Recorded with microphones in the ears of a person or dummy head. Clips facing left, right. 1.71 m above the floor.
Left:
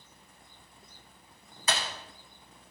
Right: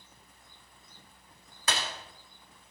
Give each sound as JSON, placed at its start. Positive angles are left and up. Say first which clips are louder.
{"t": 1.7, "sound": "breaking glass", "louder": "left 1 dB", "side_deg": -50, "distance_m": 3.5}